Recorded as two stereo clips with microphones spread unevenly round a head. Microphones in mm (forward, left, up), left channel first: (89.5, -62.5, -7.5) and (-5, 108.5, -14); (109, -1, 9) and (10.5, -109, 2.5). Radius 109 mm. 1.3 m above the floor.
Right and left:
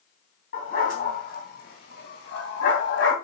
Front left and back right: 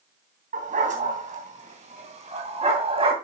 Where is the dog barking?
110° right, 3 m; by 3.1 s 85° right, 2.5 m.